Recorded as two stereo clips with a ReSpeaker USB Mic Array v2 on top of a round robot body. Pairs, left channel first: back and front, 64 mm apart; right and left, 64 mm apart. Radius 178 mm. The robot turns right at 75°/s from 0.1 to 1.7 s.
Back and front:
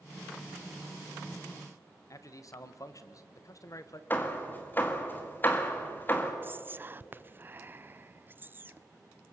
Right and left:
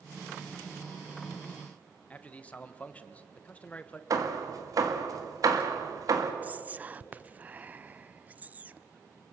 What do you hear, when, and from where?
2.1 s a man speaking: 155° right, 1.5 m
4.1 s hammering: 120° left, 2 m
6.4 s whispering: 40° left, 0.7 m